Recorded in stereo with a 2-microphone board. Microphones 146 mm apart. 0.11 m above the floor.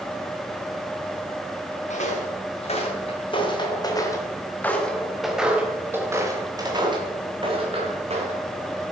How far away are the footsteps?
About 3 m.